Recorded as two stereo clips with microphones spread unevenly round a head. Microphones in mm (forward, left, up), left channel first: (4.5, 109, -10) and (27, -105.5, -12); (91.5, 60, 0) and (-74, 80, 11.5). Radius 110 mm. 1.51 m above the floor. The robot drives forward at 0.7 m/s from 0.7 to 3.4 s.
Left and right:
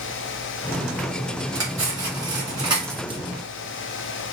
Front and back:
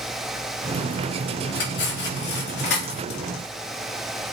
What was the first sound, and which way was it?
Cutlery clinking, 10° right.